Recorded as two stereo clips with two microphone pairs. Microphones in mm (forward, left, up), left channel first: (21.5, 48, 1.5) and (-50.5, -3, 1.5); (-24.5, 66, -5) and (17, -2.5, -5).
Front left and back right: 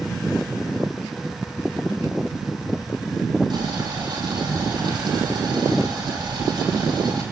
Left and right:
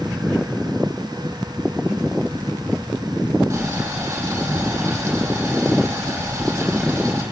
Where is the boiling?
115° right, 8.5 m.